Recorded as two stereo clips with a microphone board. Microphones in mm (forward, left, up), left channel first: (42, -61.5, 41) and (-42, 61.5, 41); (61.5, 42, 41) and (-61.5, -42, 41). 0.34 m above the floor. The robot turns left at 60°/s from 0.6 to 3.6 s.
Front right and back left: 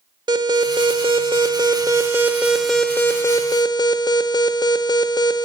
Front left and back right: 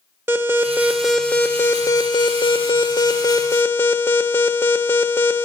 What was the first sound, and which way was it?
An alarm, 155° left.